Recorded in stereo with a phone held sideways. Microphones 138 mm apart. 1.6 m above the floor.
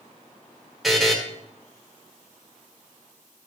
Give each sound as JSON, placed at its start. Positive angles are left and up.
{"t": 0.8, "sound": "a buzzer", "side_deg": 0, "distance_m": 1.4}